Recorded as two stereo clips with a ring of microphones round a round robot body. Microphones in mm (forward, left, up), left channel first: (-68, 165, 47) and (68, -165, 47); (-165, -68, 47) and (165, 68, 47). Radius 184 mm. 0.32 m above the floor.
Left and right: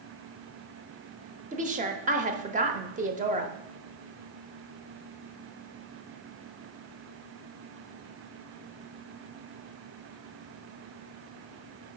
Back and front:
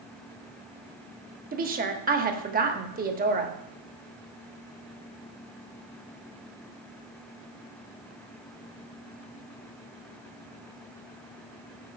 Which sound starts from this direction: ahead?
A woman speaking, at 1.5 s.